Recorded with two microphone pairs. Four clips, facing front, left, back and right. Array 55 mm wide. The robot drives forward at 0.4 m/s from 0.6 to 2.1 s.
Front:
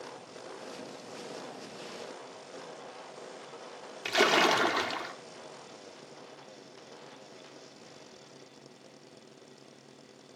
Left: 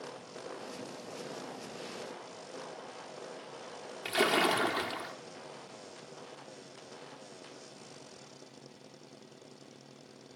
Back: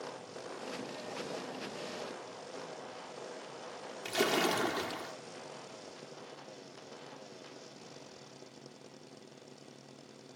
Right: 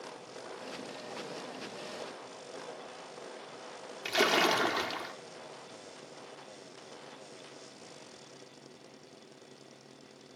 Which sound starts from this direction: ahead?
A splash, at 4.0 s.